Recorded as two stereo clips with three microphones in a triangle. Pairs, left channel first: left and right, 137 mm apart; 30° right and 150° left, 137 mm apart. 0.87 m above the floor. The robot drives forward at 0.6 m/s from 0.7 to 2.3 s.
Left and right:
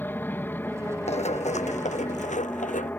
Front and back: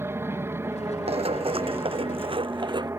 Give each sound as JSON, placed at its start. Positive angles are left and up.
{"t": 0.0, "sound": "an aircraft", "azimuth_deg": 130}
{"t": 1.1, "sound": "running footsteps", "azimuth_deg": 115}